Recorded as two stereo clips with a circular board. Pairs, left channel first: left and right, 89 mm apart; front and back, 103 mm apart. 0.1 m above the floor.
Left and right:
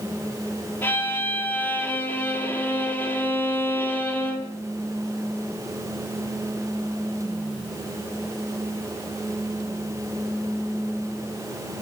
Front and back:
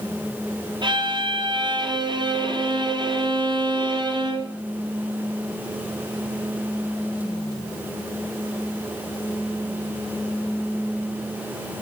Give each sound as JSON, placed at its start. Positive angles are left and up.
{"t": 0.8, "sound": "a violin", "azimuth_deg": 150, "distance_m": 1.2}